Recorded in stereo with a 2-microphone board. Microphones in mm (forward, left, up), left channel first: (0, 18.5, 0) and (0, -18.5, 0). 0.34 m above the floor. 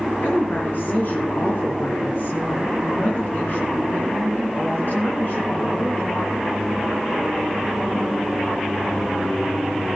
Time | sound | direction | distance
0.2 | a woman speaking | 65° left (ahead or behind) | 4.5 m